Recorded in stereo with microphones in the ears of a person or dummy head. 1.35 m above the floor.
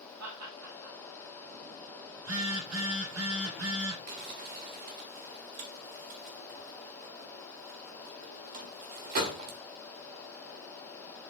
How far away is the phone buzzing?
About 5.5 m.